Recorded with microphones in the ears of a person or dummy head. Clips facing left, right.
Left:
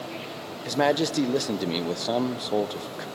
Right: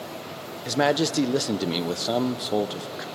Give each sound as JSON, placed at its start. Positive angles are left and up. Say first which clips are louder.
{"t": 0.7, "sound": "a man speaking", "louder": "right 1 dB", "side_deg": -5, "distance_m": 0.5}